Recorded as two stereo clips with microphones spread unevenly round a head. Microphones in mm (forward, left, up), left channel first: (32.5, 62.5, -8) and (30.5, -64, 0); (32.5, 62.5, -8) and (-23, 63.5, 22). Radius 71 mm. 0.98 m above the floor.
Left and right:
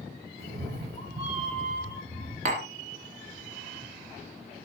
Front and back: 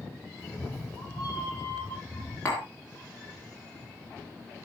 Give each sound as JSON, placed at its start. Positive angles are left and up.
{"t": 0.4, "sound": "a cat meowing", "azimuth_deg": -100, "distance_m": 2.5}
{"t": 2.5, "sound": "tapping", "azimuth_deg": -90, "distance_m": 2.0}